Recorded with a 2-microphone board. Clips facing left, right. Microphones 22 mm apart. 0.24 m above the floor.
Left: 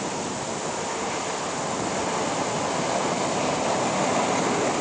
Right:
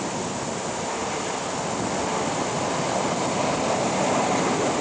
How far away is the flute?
No flute in this recording.